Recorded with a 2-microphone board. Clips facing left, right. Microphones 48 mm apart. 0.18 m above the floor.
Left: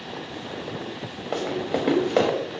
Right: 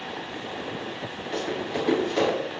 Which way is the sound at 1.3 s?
65° left (ahead or behind).